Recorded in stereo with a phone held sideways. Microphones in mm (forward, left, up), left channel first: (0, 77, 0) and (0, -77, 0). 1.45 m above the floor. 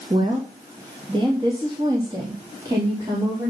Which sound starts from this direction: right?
A woman speaking, at 0.1 s.